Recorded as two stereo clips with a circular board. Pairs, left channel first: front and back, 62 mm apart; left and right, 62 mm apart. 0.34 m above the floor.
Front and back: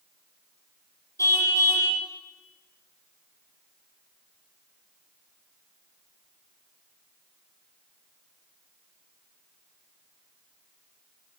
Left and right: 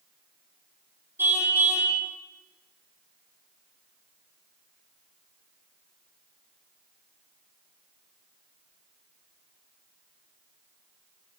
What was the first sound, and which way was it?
A car horn, 40° right.